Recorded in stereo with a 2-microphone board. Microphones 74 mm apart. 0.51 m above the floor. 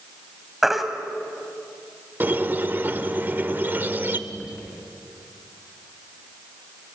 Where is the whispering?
15° right (ahead or behind), 6.5 m.